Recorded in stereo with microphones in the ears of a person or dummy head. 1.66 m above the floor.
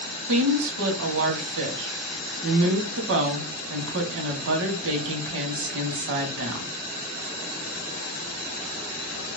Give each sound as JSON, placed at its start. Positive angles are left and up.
{"t": 0.3, "sound": "a woman speaking", "side_deg": -65, "distance_m": 1.0}